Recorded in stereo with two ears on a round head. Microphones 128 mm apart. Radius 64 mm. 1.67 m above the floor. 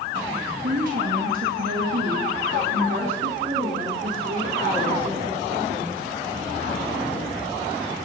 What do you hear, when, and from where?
0.6 s a woman speaking: 60° right (ahead or behind), 3 m; by 6.0 s 75° right (ahead or behind), 6.5 m